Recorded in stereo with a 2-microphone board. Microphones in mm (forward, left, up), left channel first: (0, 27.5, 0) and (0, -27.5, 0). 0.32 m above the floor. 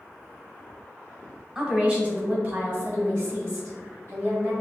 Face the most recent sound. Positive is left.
turn(degrees=-55)  # may be behind; listen again after turning